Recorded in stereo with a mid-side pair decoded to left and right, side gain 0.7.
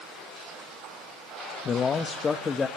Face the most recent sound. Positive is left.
turn(degrees=25)